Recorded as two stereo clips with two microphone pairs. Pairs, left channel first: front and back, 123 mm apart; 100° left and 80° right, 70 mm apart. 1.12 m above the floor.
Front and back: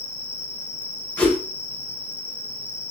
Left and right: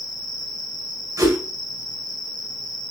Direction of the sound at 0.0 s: 75° left.